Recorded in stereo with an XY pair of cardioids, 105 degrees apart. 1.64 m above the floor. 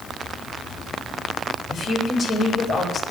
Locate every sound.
1.7 s a woman speaking: 50° left, 8 m